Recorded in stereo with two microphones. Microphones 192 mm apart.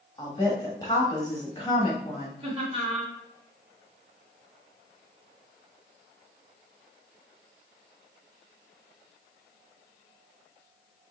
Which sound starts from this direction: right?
Laughter, at 2.4 s.